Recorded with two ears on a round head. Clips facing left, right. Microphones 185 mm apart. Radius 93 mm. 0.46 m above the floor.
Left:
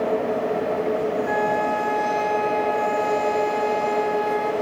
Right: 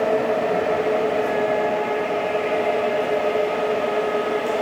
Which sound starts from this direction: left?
A flute, at 1.2 s.